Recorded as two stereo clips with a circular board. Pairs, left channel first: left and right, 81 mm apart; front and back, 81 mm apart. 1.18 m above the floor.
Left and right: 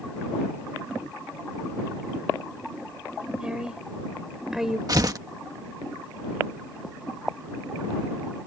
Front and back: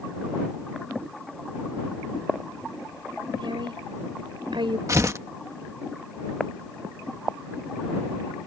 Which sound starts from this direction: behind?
A woman speaking, at 3.4 s.